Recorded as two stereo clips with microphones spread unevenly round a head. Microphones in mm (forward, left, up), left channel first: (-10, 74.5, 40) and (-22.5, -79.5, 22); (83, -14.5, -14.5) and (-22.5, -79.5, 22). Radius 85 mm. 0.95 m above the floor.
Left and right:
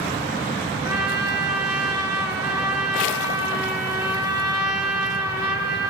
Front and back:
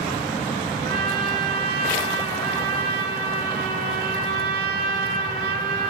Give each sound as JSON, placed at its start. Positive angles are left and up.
{"t": 0.8, "sound": "a trumpet", "azimuth_deg": -165, "distance_m": 6.5}